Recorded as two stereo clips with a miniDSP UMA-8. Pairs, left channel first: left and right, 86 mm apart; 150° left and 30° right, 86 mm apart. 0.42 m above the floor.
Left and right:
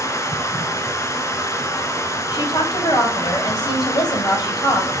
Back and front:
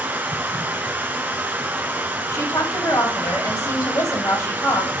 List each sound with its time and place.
0.0 s running water: 40° left, 1.1 m
2.3 s a woman speaking: 110° left, 2.5 m